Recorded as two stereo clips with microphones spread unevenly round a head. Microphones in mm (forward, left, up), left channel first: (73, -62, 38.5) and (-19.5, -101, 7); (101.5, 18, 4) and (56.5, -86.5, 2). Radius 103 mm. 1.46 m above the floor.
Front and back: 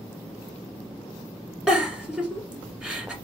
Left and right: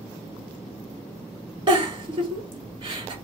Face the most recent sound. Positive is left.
turn(degrees=-75)